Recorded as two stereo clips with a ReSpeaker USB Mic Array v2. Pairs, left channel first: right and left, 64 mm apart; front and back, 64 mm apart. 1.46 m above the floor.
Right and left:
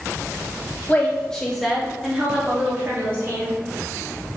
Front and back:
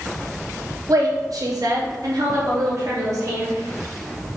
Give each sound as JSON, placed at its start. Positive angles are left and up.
{"t": 0.9, "sound": "a woman speaking", "azimuth_deg": -155, "distance_m": 1.0}